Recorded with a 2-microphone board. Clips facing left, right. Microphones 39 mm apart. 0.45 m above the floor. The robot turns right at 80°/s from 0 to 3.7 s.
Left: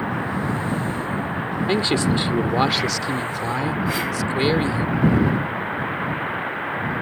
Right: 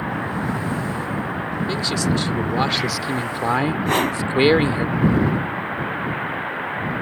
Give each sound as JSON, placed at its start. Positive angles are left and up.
{"t": 1.7, "sound": "a man speaking", "azimuth_deg": 95}
{"t": 3.9, "sound": "a whoosh", "side_deg": -60}